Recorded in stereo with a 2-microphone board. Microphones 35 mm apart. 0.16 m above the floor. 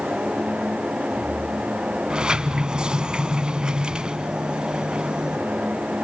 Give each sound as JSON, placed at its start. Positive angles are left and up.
{"t": 2.1, "sound": "a sliding door", "side_deg": -25, "distance_m": 0.7}